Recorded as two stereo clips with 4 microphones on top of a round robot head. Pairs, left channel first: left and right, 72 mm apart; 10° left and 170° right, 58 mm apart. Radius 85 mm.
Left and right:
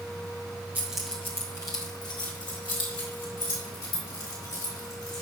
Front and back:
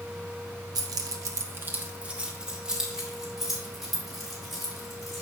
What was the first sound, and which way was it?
Keys jangling, 160° right.